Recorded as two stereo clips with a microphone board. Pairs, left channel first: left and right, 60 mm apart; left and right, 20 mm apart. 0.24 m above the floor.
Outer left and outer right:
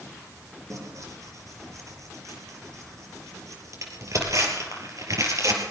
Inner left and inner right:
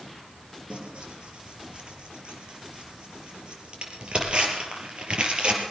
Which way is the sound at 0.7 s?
60° right (ahead or behind).